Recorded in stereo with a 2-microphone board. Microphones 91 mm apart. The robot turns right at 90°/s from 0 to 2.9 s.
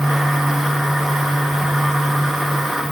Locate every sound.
Only background noise.